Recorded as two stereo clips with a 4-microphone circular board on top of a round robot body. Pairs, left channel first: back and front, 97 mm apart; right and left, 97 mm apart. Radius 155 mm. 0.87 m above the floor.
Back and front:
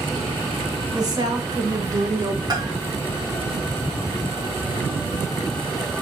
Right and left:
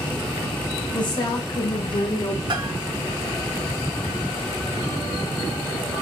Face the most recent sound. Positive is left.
turn(degrees=50)